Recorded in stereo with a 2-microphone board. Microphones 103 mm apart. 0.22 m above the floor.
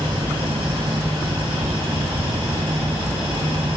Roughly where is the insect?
Right.